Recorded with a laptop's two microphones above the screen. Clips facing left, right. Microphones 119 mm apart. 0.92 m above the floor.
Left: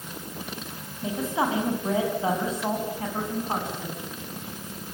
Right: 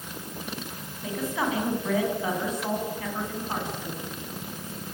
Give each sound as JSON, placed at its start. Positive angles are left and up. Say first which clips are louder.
{"t": 1.0, "sound": "a woman speaking", "louder": "left 2 dB", "side_deg": 25, "distance_m": 8.0}